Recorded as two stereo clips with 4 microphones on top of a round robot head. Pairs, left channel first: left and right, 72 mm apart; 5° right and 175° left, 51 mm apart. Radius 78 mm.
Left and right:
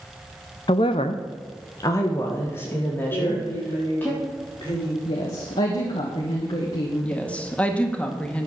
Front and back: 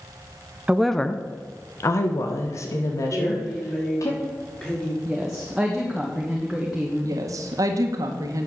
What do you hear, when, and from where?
0.7 s a woman speaking: 110° left, 0.7 m; by 4.1 s 20° left, 3.5 m
3.1 s a woman speaking: 70° left, 7 m
5.0 s a woman speaking: 95° left, 1.6 m
7.0 s a woman speaking: 160° left, 1.6 m